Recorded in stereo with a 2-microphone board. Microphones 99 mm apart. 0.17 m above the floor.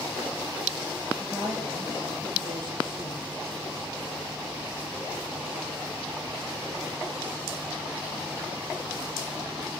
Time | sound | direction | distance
1.2 | a woman speaking | 50° right (ahead or behind) | 4 m